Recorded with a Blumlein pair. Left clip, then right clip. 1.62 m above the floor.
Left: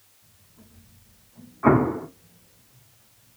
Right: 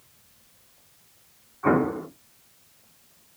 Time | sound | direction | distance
1.6 | an explosion | 70° left | 1.1 m